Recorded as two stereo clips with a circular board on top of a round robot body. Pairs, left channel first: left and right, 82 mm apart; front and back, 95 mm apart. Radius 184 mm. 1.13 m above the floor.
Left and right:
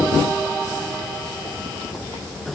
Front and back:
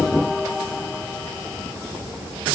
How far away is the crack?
I don't hear a crack.